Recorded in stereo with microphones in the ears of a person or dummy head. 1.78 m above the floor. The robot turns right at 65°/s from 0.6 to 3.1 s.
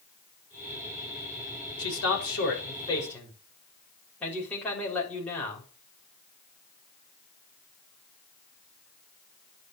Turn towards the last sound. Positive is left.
turn(degrees=175)